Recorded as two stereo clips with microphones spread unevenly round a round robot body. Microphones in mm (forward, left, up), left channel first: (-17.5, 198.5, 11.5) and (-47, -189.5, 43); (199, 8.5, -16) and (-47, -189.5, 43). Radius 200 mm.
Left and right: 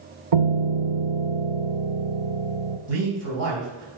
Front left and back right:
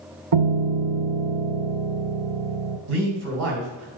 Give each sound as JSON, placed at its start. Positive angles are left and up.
{"t": 0.3, "sound": "a piano", "azimuth_deg": -110, "distance_m": 0.8}
{"t": 2.9, "sound": "a man speaking", "azimuth_deg": -145, "distance_m": 3.0}